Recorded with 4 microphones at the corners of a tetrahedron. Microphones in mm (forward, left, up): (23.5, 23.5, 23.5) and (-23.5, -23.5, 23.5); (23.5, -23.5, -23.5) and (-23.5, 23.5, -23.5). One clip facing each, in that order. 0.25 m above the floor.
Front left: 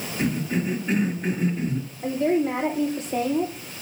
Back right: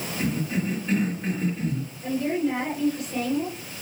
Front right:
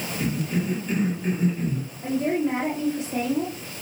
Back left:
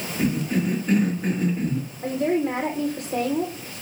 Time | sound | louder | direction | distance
0.2 | a cough | front left 2 dB, back left 4 dB | 110° left | 4.5 m
2.0 | a woman speaking | front left 3 dB, back left 1 dB | 100° left | 6.5 m